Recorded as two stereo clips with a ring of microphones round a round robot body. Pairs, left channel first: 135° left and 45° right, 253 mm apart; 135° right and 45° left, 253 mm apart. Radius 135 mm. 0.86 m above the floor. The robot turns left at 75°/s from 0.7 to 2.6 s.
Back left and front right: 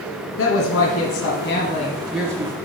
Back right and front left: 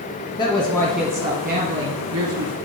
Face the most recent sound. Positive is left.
turn(degrees=10)